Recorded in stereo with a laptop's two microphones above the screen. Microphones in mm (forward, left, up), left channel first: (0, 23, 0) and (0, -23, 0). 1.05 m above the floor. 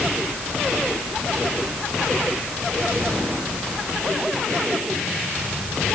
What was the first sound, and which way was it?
Only background noise.